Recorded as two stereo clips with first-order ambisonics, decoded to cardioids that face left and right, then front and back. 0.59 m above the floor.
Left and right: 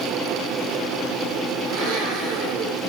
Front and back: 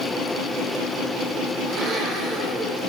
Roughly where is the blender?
Behind right.